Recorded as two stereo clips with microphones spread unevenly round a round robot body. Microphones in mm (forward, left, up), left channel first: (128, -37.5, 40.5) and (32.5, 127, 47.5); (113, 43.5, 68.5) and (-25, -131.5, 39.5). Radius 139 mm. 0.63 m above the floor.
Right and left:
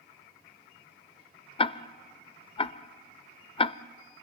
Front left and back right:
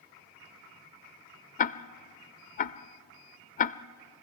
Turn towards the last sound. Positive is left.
turn(degrees=5)